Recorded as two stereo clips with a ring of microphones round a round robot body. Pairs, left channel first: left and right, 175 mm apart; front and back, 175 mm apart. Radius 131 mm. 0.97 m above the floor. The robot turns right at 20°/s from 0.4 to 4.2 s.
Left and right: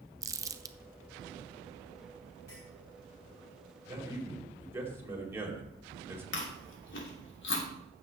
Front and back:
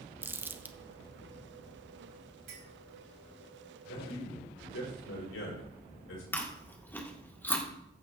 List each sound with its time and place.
0.2 s crumpling: 125° right, 0.6 m; by 0.8 s 115° right, 0.6 m
2.5 s a clink: 170° left, 3 m; by 2.7 s 175° left, 3 m
3.9 s a man speaking: 20° right, 5 m; by 6.2 s 15° right, 5 m
6.3 s chewing: 80° left, 2.5 m